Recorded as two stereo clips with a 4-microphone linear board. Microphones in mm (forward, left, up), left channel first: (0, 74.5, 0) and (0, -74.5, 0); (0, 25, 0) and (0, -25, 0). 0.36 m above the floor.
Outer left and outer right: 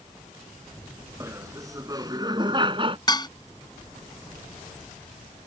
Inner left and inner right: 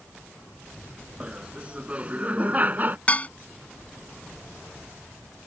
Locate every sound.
1.2 s laughter: 20° right (ahead or behind); by 3.0 s 35° right (ahead or behind)
3.1 s dishes clattering: 30° left (ahead or behind)